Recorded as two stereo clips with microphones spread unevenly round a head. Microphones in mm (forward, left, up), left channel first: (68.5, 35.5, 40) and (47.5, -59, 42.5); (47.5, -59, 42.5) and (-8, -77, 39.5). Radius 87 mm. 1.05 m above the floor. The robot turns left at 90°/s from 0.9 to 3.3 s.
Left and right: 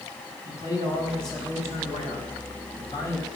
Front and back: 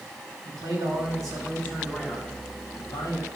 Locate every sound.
0.5 s a man speaking: 150° right, 5.5 m; by 3.3 s straight ahead, 5.5 m